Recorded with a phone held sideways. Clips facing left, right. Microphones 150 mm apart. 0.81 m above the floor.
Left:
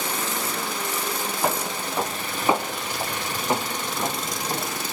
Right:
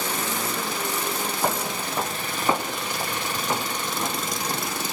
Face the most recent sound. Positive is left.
turn(degrees=20)  # may be behind; listen again after turning